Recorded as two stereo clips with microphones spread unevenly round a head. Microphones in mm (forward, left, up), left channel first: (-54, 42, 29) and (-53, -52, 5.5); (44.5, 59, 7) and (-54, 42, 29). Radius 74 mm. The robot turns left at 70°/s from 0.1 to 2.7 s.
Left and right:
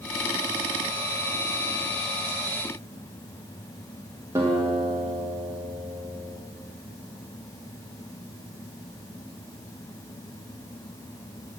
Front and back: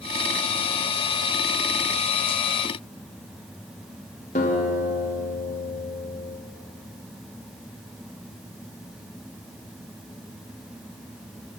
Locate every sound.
4.3 s a guitar: 10° right, 1.2 m